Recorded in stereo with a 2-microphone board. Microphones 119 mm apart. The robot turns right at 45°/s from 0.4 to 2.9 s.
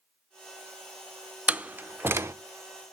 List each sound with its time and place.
1.5 s a door slam: 10° right (ahead or behind), 0.5 m; by 2.3 s 20° right (ahead or behind), 0.5 m